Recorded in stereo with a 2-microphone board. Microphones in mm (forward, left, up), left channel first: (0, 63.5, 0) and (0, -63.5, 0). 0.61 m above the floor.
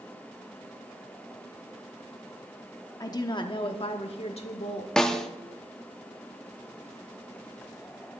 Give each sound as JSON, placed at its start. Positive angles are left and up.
{"t": 3.0, "sound": "a woman speaking", "side_deg": 30, "distance_m": 1.0}
{"t": 5.0, "sound": "a snare drum", "side_deg": 5, "distance_m": 0.8}